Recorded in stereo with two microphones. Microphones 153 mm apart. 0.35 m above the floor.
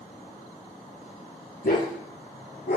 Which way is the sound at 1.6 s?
85° left.